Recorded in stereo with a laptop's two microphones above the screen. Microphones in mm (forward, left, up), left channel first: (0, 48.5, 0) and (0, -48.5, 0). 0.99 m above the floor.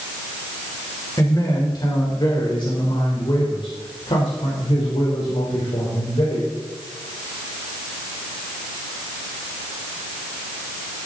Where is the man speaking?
40° left (ahead or behind), 3.5 m; by 6.5 s 85° left, 3.5 m.